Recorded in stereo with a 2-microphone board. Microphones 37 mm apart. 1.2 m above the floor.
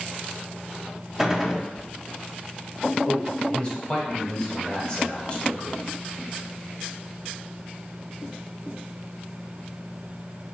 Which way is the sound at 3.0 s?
30° left (ahead or behind).